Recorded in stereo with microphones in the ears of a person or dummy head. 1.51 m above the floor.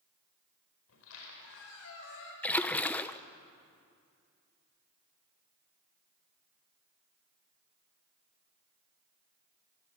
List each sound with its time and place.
0.9 s a squeak: 85° left, 4.5 m
2.4 s a splash: 5° left (ahead or behind), 0.7 m